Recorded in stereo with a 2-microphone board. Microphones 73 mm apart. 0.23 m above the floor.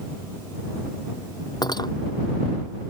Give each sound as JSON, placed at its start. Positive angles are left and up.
{"t": 1.6, "sound": "cutlery clinking", "side_deg": 65}